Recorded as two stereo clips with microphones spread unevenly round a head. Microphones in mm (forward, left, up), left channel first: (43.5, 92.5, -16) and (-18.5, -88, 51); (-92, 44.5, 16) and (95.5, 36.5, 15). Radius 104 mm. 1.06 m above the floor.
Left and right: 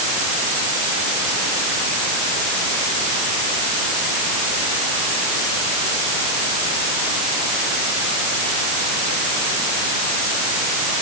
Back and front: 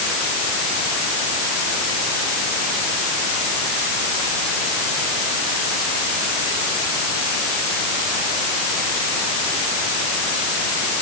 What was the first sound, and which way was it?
Only background noise.